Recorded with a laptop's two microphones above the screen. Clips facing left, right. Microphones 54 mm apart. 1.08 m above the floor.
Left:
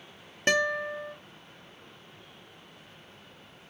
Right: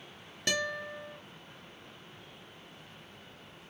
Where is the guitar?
40° left (ahead or behind), 0.9 m.